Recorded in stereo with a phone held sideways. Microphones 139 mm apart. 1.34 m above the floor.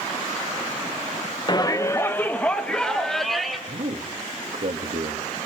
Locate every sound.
1.5 s a shout: 35° left (ahead or behind), 0.9 m; by 3.6 s centre (ahead or behind), 2.5 m
3.7 s a man speaking: 70° right (ahead or behind), 2.5 m